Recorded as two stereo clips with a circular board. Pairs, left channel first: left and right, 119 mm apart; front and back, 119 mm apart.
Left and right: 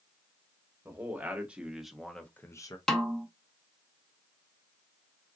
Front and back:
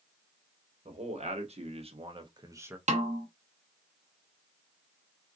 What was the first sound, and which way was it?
A man speaking, 160° right.